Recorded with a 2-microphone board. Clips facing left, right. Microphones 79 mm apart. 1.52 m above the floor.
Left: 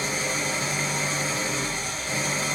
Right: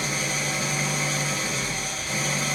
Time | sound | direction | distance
0.0 | an engine running | 30° left (ahead or behind) | 1.2 m